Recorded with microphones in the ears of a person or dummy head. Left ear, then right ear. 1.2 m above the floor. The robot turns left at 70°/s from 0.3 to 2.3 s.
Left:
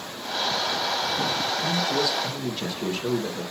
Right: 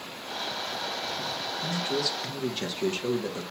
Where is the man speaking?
50° right, 1.3 m; by 3.4 s 100° right, 1.3 m.